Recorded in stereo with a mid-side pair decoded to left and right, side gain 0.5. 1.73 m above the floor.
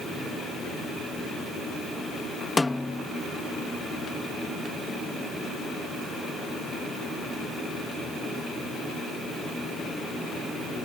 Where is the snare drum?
15° left.